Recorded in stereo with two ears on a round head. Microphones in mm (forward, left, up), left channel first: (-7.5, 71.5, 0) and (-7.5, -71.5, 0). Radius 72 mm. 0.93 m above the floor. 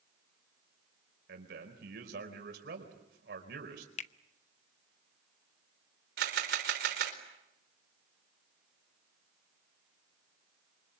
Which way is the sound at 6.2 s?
70° right (ahead or behind).